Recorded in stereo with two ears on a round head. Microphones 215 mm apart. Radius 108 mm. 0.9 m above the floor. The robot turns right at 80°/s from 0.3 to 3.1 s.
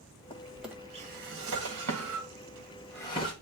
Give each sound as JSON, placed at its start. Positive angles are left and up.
{"t": 0.3, "sound": "a drawer", "side_deg": 25, "distance_m": 1.6}